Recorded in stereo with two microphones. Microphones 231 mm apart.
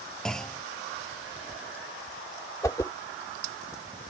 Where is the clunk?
5° left (ahead or behind).